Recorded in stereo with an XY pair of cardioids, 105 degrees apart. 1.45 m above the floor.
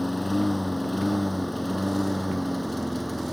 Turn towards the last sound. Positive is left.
turn(degrees=0)